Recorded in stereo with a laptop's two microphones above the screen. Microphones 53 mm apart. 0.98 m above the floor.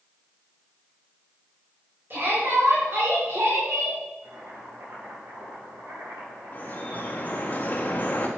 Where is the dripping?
35° left (ahead or behind), 1.8 m.